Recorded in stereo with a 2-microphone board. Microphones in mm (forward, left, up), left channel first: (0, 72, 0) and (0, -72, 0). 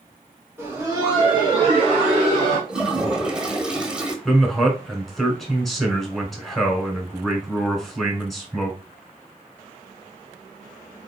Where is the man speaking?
Centre (ahead or behind), 1.3 m.